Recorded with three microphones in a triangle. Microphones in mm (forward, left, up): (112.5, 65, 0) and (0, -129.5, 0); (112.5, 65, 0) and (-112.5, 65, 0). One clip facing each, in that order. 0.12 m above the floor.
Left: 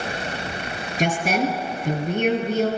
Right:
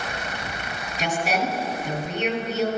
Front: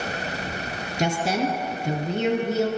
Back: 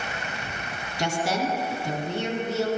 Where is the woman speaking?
60° left, 1.8 m.